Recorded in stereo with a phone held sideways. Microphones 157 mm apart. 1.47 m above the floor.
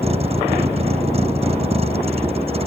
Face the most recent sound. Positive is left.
turn(degrees=-40)  # may be behind; listen again after turning